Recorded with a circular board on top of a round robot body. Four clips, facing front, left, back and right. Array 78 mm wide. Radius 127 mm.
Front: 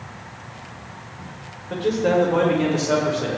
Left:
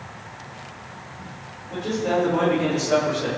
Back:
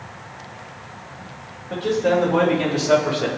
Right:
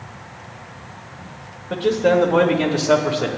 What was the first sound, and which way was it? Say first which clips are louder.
A man speaking: right 7 dB, even; 80° right.